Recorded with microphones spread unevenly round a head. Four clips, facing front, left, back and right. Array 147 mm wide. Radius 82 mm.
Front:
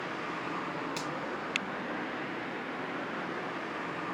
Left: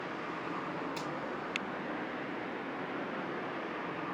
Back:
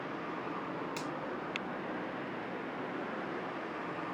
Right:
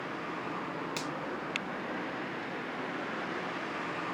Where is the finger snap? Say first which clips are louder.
Right 1 dB, front 2 dB; 70° right, 1.9 m.